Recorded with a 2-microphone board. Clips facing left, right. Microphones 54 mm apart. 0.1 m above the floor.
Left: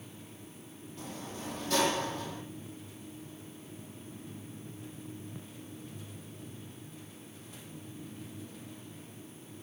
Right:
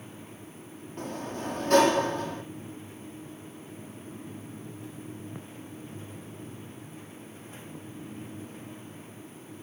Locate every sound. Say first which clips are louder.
1.0 s a sliding door: right 7 dB; 50° right (ahead or behind), 1.0 m